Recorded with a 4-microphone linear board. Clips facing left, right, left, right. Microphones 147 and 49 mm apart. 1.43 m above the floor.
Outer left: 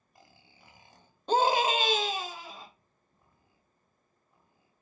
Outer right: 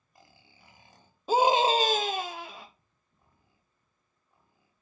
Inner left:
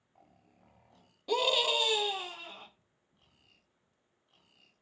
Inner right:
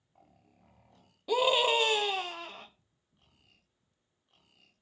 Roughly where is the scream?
Centre.